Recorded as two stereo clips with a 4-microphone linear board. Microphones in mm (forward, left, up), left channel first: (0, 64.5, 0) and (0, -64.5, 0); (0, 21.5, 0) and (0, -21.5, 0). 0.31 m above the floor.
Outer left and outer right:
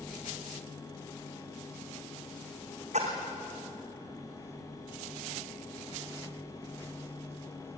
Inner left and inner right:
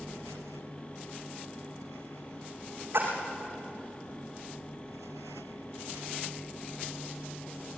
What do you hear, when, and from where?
2.9 s a splash: 60° right (ahead or behind), 4.5 m